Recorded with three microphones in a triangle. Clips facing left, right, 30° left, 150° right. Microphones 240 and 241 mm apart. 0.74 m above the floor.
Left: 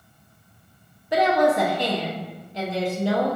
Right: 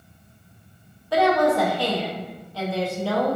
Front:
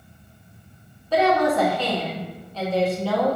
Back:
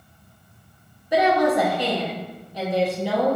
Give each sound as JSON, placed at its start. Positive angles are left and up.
{"t": 1.1, "sound": "a woman speaking", "azimuth_deg": 150, "distance_m": 0.6}